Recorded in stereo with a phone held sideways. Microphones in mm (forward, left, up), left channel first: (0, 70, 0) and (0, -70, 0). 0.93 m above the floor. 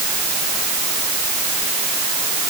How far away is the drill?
I don't hear a drill.